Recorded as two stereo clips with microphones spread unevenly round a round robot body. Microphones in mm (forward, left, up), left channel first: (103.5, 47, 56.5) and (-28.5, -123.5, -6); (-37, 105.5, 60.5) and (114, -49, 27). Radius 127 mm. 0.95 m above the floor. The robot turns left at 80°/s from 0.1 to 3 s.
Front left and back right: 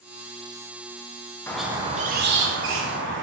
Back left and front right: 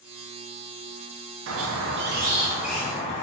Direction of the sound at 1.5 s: 35° right.